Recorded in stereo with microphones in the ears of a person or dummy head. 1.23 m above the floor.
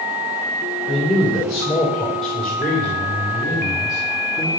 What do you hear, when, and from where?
0.9 s a man speaking: 10° right (ahead or behind), 3.5 m; by 4.5 s 25° left (ahead or behind), 2.5 m